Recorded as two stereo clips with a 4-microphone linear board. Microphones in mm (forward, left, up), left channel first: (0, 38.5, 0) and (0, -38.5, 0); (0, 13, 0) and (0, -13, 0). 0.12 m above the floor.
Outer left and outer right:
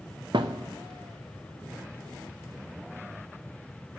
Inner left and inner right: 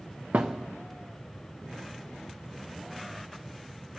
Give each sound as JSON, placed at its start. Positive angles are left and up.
{"t": 0.3, "sound": "a thud", "side_deg": -90, "distance_m": 1.0}